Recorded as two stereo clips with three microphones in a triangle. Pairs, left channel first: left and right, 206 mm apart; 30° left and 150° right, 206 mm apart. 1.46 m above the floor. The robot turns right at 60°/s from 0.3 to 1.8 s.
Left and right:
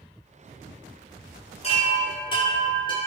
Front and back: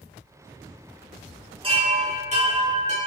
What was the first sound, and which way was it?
A chime, 150° left.